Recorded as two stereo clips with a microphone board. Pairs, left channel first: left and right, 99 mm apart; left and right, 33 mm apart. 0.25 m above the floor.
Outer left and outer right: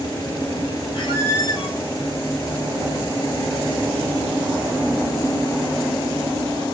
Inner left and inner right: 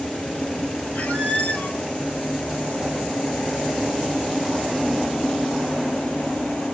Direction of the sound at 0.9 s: 75° left (ahead or behind).